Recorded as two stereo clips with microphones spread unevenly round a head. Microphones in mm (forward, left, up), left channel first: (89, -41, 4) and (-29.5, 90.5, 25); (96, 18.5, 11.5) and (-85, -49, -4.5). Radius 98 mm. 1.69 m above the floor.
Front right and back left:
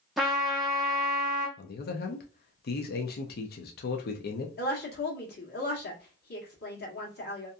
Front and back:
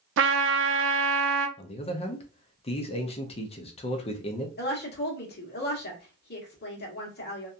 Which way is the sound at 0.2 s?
140° right.